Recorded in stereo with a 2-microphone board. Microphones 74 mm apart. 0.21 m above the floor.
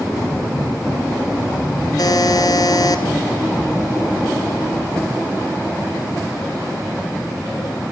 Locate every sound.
2.0 s a buzzer: 60° left (ahead or behind), 1.5 m